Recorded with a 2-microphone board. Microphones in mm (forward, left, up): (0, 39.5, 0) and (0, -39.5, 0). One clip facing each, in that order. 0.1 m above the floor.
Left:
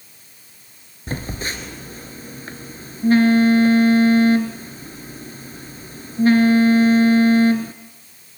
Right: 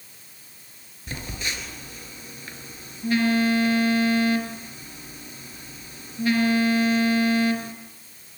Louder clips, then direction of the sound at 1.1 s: Left 5 dB; 40° left (ahead or behind).